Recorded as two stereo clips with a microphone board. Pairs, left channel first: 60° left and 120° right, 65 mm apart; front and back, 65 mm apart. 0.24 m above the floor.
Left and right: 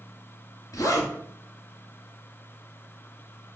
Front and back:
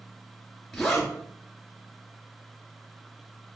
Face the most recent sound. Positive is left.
turn(degrees=90)